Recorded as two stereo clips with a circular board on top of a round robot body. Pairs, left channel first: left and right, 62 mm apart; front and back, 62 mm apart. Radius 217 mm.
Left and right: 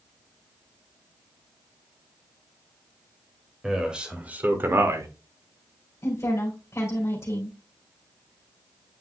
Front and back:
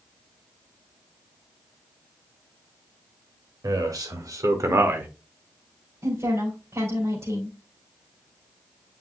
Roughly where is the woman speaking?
Behind left.